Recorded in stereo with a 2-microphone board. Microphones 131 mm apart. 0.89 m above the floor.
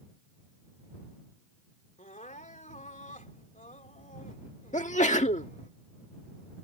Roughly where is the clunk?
No clunk in this recording.